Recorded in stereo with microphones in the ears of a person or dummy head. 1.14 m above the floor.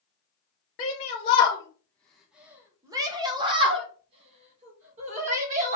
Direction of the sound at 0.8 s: 40° left (ahead or behind).